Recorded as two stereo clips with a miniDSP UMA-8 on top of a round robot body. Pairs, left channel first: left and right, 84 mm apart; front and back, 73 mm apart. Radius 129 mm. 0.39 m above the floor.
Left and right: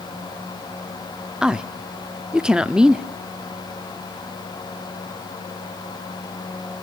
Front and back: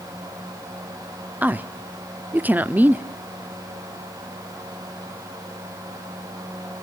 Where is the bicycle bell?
I don't hear a bicycle bell.